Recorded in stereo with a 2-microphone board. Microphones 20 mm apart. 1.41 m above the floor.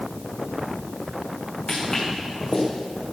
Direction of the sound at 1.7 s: 50° left (ahead or behind).